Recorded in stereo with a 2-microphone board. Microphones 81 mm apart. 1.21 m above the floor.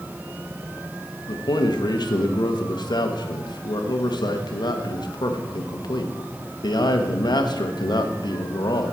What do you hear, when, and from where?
1.3 s a man speaking: 60° left (ahead or behind), 1.1 m